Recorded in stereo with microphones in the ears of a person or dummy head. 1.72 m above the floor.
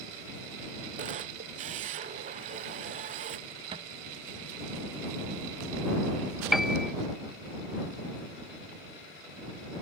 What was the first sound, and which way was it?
A camera shutter, 35° right (ahead or behind).